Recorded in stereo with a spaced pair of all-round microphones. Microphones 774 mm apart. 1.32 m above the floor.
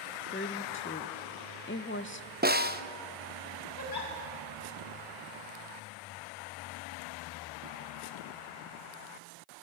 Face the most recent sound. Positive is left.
turn(degrees=85)